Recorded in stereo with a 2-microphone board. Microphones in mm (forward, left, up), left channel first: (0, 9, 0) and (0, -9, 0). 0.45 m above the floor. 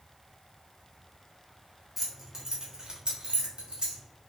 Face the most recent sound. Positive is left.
turn(degrees=-65)  # may be behind; listen again after turning